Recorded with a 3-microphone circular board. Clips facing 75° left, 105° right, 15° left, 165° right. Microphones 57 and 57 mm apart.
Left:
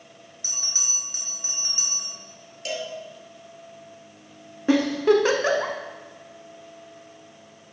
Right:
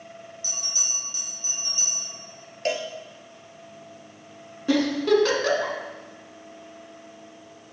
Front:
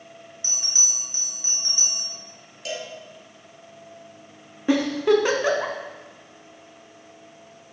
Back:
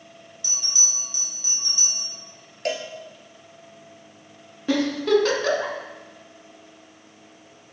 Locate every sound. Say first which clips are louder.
0.4 s a bell: right 1 dB, back 1 dB; 65° left, 2.5 m
2.6 s a cowbell: right 4 dB, back 5 dB; 140° right, 1.1 m
4.7 s a giggle: left 2 dB, front 1 dB; 60° left, 1.1 m